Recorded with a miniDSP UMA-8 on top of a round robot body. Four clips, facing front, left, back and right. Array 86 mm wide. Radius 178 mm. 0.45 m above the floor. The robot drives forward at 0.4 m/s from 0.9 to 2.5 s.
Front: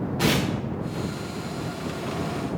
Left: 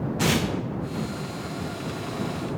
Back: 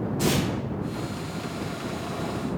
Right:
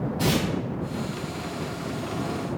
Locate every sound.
0.2 s tearing paper: 40° left, 0.7 m